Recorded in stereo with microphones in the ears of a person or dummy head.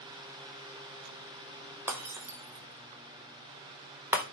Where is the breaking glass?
10° right (ahead or behind), 0.5 m.